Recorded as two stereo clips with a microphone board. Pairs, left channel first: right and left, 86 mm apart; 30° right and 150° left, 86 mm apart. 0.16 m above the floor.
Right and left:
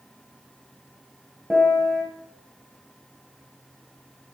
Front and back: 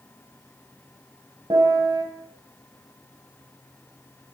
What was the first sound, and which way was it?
A piano, 175° left.